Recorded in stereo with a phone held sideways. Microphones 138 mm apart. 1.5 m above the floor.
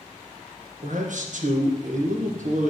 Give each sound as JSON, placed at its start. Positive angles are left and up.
{"t": 0.8, "sound": "a man speaking", "side_deg": -65, "distance_m": 1.4}